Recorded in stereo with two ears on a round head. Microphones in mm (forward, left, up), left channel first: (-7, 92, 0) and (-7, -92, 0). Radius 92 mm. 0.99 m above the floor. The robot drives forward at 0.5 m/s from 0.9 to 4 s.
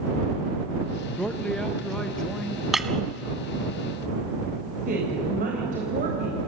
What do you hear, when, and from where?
1.2 s a man speaking: 5° left (ahead or behind), 0.7 m; by 2.6 s centre (ahead or behind), 1.4 m
2.7 s breaking glass: centre (ahead or behind), 1.3 m
4.9 s a woman speaking: 40° right (ahead or behind), 4 m